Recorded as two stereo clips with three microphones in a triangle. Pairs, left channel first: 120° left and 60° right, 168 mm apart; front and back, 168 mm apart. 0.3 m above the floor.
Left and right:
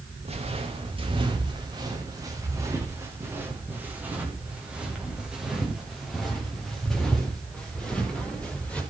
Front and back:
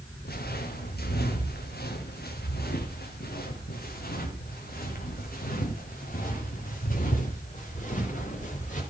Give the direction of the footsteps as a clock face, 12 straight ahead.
12 o'clock.